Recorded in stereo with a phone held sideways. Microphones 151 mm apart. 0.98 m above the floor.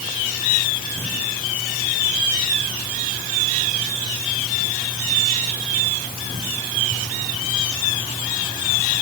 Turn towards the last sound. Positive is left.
No sound to turn to.